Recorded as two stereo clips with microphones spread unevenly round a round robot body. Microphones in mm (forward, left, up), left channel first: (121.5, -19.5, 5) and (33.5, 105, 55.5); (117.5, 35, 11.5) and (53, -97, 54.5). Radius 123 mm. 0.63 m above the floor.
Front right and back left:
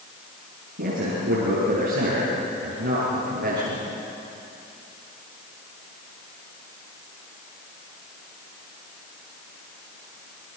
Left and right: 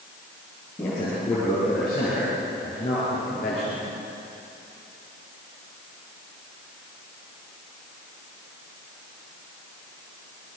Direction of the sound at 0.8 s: 140° left.